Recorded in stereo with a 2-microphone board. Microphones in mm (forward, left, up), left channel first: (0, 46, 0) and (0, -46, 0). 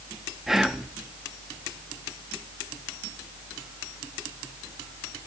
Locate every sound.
0.5 s whispering: 5° right (ahead or behind), 0.6 m